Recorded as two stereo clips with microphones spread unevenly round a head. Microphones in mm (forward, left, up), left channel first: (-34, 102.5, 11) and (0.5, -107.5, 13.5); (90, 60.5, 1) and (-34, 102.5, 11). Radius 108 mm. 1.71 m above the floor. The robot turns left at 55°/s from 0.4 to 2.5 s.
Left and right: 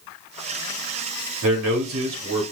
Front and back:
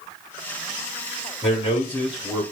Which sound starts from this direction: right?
A man speaking, at 1.4 s.